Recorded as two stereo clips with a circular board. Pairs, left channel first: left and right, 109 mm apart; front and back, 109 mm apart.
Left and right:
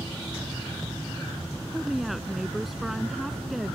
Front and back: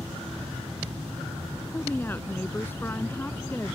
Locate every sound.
1.7 s a woman speaking: 5° right